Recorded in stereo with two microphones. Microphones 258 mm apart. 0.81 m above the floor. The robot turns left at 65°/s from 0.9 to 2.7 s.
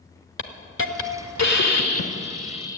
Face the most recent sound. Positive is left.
turn(degrees=15)